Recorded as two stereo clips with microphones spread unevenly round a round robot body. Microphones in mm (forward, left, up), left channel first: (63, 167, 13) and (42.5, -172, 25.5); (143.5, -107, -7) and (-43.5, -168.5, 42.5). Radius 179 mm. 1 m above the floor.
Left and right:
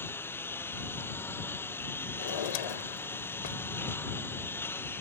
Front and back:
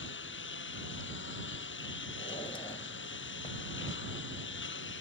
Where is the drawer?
100° left.